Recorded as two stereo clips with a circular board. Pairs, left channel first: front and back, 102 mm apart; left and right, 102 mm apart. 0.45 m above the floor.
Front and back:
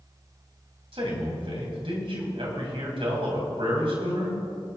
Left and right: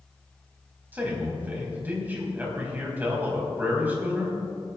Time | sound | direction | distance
0.9 | a man speaking | 160° right | 3.5 m